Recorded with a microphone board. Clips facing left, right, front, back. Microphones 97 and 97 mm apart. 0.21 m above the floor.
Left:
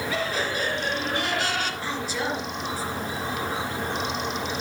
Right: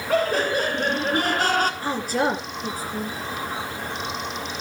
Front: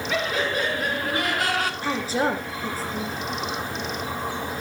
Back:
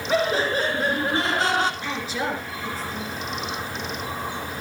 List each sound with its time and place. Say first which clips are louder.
0.1 s laughter: right 10 dB, back 4 dB; 125° right, 4 m; by 1.7 s 120° right, 2.5 m
1.8 s a woman speaking: right 5 dB, front 4 dB; 50° right, 3 m